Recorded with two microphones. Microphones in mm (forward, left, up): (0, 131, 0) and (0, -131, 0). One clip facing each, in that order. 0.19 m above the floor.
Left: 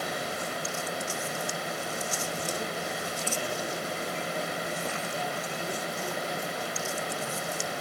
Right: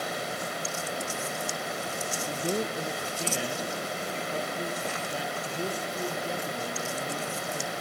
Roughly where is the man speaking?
Right.